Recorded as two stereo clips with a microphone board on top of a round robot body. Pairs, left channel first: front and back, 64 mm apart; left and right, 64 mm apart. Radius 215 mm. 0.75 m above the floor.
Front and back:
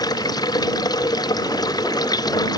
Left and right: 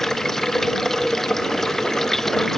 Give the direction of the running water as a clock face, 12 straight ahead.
12 o'clock.